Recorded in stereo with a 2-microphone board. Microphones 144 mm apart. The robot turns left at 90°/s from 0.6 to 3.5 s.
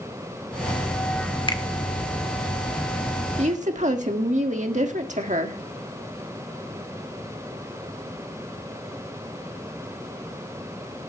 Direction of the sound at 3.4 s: 50° right (ahead or behind).